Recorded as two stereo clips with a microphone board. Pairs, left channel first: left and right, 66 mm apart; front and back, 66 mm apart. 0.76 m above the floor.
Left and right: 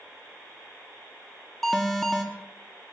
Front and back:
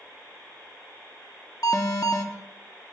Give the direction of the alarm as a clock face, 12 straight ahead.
12 o'clock.